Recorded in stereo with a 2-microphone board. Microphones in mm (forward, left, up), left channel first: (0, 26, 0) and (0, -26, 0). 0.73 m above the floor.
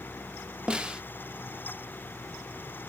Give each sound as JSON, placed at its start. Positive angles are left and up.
{"t": 0.7, "sound": "a snare drum", "side_deg": -20, "distance_m": 0.6}